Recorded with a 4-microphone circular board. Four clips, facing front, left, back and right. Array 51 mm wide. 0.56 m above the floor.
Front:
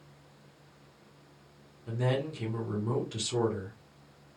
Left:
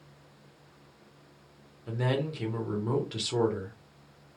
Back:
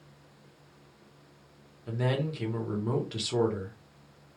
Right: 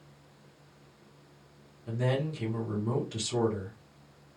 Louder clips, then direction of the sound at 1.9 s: Even, back 1 dB; 135° left.